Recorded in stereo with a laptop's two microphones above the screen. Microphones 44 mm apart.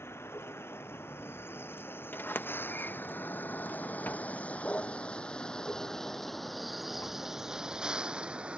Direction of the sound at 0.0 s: 65° left (ahead or behind).